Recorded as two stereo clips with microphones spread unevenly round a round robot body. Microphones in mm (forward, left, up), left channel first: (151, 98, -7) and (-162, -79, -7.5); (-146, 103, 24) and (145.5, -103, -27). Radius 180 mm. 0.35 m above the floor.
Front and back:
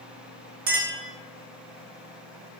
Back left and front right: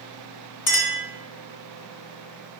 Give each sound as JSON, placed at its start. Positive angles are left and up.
{"t": 0.7, "sound": "a clink", "azimuth_deg": 165, "distance_m": 1.3}